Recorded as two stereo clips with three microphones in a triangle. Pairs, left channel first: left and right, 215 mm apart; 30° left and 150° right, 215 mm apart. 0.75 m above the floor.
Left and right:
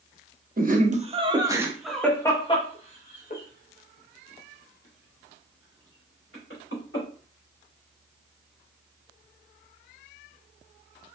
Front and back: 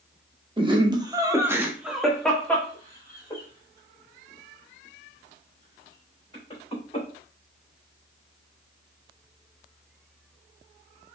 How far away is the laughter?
About 1.0 m.